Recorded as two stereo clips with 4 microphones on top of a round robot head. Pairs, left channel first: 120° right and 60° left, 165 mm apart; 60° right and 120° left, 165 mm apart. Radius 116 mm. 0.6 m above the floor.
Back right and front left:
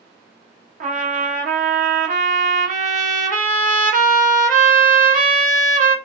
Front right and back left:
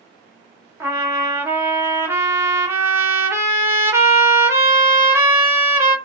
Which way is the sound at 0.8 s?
50° left.